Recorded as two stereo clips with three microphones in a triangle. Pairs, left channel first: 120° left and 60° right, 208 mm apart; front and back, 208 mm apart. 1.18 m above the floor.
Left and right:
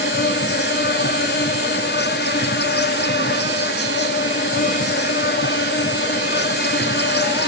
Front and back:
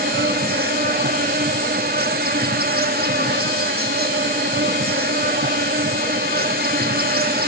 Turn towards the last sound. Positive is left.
turn(degrees=145)